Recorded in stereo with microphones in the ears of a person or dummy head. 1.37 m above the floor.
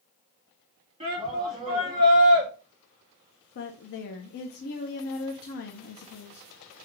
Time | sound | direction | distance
1.0 | a shout | 30° right (ahead or behind) | 2 m
3.5 | a woman speaking | 50° left (ahead or behind) | 0.5 m